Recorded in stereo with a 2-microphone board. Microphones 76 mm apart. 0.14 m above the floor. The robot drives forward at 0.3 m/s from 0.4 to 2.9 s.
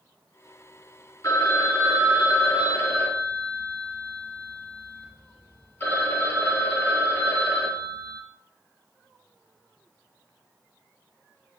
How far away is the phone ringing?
About 1.4 m.